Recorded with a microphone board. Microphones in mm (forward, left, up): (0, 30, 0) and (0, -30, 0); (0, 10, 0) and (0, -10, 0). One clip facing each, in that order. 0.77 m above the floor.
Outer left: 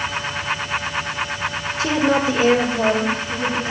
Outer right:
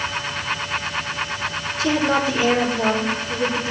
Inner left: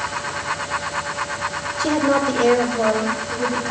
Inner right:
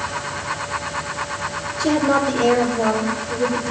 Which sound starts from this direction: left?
A woman speaking, at 1.8 s.